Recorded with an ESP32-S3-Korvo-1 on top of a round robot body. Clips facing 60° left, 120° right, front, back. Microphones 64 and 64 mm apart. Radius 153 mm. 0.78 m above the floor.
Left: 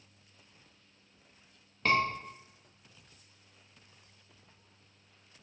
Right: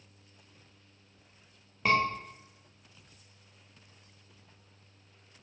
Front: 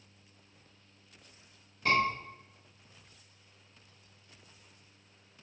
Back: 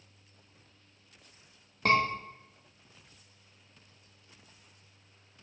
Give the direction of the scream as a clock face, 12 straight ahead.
7 o'clock.